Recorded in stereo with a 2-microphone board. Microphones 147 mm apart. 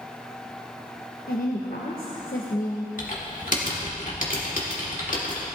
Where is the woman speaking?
70° left (ahead or behind), 1.1 m.